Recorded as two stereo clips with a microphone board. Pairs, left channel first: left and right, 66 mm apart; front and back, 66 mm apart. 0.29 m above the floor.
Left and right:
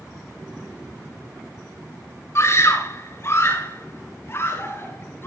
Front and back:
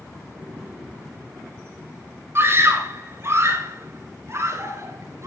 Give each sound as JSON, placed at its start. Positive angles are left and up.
{"t": 2.4, "sound": "a scream", "azimuth_deg": 130, "distance_m": 4.0}